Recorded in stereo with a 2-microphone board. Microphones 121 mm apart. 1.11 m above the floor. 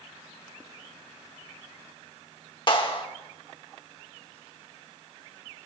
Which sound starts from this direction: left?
A clap, at 2.7 s.